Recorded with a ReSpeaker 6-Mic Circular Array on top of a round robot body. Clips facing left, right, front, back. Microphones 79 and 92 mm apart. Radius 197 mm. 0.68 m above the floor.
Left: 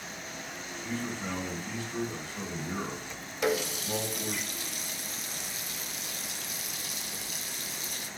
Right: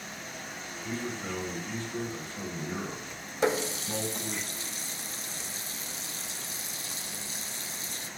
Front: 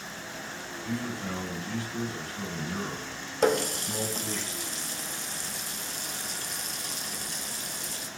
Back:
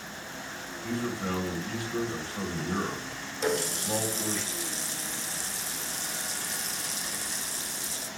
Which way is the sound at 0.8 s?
165° left.